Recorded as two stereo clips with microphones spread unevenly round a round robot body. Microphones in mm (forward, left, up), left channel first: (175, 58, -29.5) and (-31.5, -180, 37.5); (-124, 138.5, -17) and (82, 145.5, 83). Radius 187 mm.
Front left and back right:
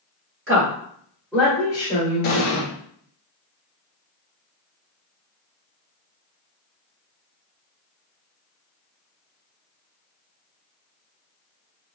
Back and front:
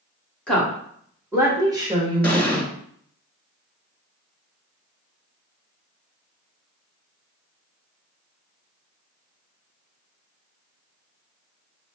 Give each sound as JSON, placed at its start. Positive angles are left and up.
{"t": 0.5, "sound": "a woman speaking", "azimuth_deg": -165, "distance_m": 1.3}
{"t": 2.2, "sound": "an explosion", "azimuth_deg": 95, "distance_m": 1.1}